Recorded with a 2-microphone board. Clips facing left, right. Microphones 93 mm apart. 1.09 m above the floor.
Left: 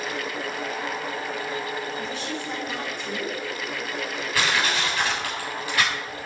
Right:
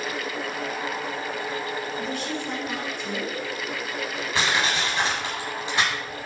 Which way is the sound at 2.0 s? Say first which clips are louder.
Right 1 dB; 60° right (ahead or behind).